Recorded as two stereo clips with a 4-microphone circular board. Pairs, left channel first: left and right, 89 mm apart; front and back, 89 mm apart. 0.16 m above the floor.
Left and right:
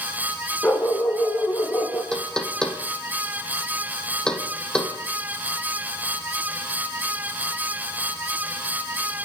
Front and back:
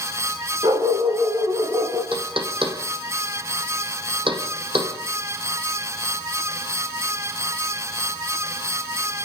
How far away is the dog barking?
About 8 m.